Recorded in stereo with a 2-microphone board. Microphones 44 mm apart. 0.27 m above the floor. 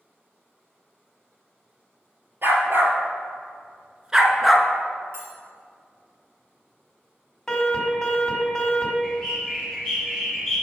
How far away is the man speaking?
No man speaking in this recording.